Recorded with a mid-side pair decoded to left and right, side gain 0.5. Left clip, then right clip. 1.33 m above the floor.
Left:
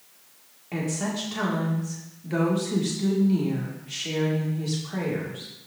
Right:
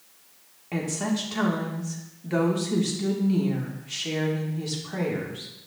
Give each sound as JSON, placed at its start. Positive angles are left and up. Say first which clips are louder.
{"t": 0.7, "sound": "a woman speaking", "louder": "right 1 dB", "azimuth_deg": -20, "distance_m": 2.0}